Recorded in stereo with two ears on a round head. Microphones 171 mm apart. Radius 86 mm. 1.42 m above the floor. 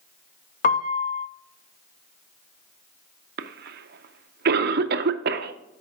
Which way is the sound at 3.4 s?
55° right (ahead or behind).